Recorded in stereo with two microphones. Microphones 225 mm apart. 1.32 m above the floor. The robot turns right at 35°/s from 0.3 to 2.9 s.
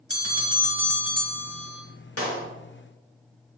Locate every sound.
0.1 s a bell: 100° left, 1.8 m; by 1.8 s 155° left, 1.8 m
2.2 s a clap: 80° left, 2 m; by 2.5 s 85° left, 2 m